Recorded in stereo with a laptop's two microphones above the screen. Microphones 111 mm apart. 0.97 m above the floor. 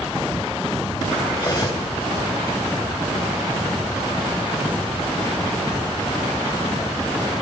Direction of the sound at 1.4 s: 30° left (ahead or behind).